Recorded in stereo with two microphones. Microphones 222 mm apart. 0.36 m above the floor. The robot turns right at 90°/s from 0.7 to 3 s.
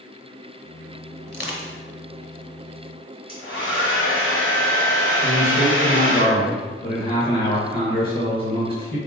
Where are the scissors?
I don't hear scissors.